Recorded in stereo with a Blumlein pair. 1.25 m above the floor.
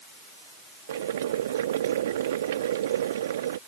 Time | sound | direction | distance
0.9 | boiling | 60° right | ?